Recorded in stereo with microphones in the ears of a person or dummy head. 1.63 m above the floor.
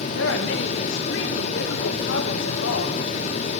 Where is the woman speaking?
90° left, 2.5 m.